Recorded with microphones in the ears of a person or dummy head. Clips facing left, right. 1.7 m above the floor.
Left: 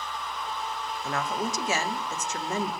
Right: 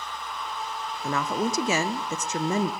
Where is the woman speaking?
70° right (ahead or behind), 0.7 m.